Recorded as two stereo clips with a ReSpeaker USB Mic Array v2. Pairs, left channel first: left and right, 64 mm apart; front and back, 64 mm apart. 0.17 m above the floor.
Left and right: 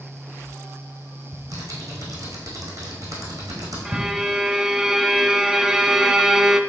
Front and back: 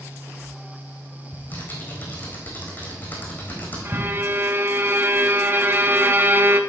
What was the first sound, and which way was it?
Typing on a keyboard, 60° right.